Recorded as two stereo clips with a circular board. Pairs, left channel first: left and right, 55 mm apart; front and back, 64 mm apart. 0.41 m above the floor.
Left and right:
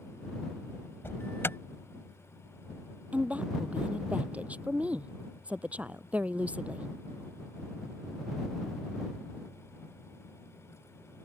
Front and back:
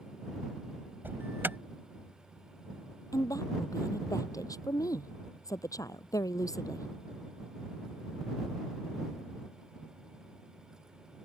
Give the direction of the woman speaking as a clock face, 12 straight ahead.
1 o'clock.